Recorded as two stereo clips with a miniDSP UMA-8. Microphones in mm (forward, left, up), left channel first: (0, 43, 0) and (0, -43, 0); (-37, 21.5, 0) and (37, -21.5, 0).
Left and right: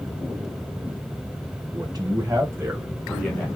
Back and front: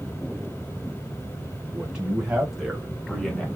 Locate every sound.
1.7 s a man speaking: 110° right, 2.5 m; by 3.5 s 90° left, 1.5 m